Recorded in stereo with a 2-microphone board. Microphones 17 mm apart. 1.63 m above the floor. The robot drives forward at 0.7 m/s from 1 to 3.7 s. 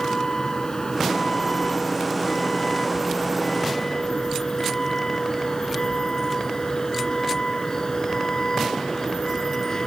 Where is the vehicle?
35° left (ahead or behind); by 9.9 s 30° left (ahead or behind).